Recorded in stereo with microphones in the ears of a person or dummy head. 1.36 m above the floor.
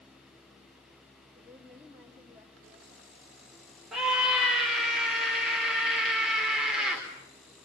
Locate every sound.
1.4 s a woman speaking: 5° right (ahead or behind), 3 m
3.9 s a scream: 5° right (ahead or behind), 4 m